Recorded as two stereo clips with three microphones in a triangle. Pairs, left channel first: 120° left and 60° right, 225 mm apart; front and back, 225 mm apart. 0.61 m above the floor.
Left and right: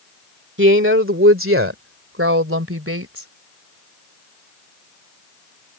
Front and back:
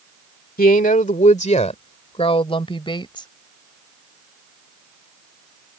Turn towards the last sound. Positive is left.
turn(degrees=-70)